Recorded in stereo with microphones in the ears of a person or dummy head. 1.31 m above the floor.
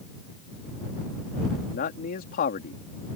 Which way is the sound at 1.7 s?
50° left (ahead or behind).